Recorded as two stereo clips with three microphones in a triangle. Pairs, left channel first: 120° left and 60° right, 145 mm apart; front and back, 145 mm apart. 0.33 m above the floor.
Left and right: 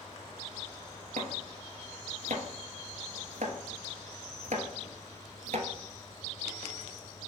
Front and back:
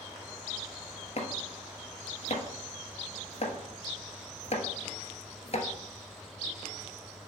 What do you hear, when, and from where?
1.2 s chopping: 35° right, 1.1 m